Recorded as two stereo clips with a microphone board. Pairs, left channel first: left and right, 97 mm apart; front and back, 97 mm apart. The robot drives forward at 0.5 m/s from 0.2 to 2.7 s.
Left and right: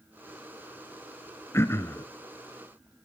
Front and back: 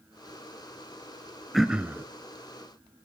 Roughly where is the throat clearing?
Left.